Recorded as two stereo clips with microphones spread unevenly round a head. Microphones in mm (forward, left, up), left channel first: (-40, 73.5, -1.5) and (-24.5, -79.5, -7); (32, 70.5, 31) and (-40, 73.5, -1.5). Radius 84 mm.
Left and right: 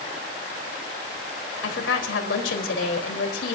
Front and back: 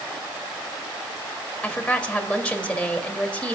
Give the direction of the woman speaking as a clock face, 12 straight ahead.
10 o'clock.